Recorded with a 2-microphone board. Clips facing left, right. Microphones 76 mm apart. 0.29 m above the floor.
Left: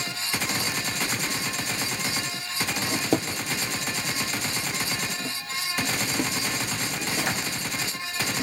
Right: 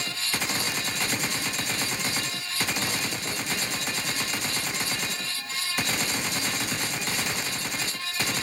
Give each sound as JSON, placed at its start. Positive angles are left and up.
{"t": 2.9, "sound": "a drawer", "side_deg": 60, "distance_m": 3.0}